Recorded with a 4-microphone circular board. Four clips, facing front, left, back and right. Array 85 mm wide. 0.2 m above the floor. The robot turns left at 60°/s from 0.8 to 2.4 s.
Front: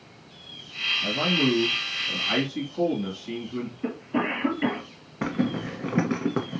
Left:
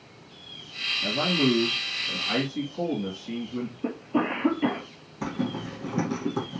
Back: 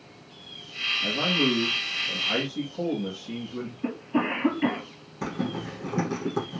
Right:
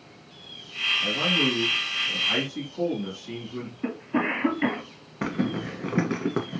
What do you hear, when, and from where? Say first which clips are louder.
1.0 s a man speaking: left 3 dB, front 1 dB; 85° left, 2 m; by 3.7 s straight ahead, 2 m
3.8 s a cough: right 1 dB, back 1 dB; 75° right, 2.5 m
5.2 s a zipper: right 3 dB, front 4 dB; 50° right, 1.1 m